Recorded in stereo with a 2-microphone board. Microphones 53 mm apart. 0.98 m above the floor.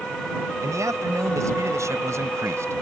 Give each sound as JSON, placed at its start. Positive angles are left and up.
{"t": 0.6, "sound": "a man speaking", "side_deg": -85}